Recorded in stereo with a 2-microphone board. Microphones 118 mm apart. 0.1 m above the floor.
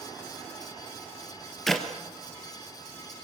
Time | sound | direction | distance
1.7 | a clap | 5° left (ahead or behind) | 1.9 m